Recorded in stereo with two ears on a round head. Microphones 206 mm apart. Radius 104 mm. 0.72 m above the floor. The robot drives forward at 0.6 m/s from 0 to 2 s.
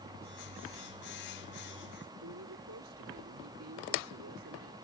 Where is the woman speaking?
65° right (ahead or behind).